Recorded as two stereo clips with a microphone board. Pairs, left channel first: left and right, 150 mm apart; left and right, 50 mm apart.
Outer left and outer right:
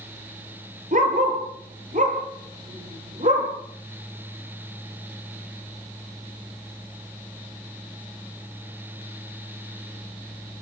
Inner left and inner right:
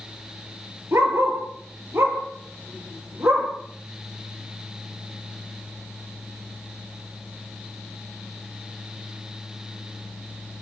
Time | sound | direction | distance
0.9 | a dog barking | 60° right (ahead or behind) | 6 m